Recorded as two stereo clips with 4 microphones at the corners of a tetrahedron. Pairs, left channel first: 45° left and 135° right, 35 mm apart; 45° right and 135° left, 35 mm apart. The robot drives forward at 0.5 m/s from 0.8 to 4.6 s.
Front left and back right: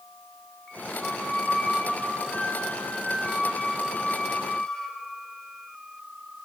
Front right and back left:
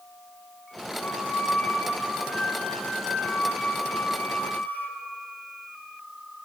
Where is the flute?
20° right, 7.5 m; by 5.0 s 25° right, 6 m.